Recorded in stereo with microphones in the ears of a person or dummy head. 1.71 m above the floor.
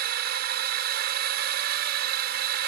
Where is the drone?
60° right (ahead or behind).